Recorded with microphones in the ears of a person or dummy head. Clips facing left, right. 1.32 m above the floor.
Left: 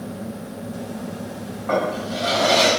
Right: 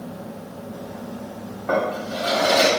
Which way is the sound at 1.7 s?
35° right (ahead or behind).